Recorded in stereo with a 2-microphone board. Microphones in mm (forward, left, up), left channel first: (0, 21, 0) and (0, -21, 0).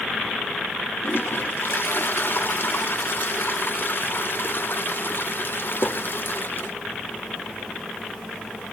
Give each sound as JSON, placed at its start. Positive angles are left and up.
{"t": 1.0, "sound": "a toilet flushing", "side_deg": 55, "distance_m": 1.1}